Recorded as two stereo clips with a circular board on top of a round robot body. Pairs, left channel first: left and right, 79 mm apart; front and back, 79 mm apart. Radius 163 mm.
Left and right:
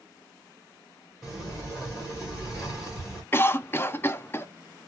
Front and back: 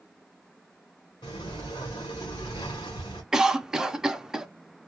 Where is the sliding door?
5° left, 0.8 m.